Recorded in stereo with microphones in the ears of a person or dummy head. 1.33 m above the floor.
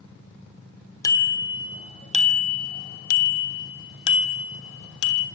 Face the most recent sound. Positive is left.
turn(degrees=75)  # may be behind; listen again after turning